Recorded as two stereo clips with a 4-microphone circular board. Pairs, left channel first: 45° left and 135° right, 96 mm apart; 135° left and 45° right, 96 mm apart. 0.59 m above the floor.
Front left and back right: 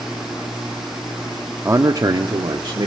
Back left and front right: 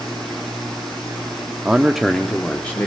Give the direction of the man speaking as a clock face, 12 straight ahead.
4 o'clock.